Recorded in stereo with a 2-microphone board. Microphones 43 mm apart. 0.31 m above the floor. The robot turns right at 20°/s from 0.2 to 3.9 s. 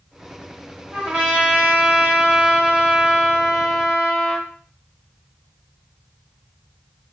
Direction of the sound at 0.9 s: 20° right (ahead or behind).